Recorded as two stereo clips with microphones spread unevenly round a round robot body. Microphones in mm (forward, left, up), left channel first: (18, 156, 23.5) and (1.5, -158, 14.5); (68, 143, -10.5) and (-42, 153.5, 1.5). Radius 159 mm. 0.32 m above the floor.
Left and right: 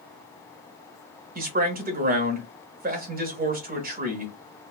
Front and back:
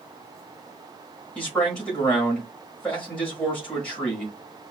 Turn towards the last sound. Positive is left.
turn(degrees=-70)